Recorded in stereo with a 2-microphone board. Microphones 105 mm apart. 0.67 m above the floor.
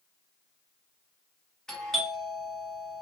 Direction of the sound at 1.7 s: 5° left (ahead or behind).